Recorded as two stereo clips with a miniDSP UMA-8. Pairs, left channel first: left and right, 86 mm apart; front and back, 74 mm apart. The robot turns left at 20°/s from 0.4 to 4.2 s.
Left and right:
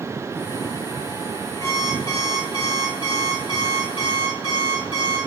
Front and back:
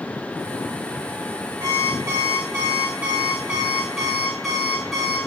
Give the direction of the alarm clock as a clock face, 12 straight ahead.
7 o'clock.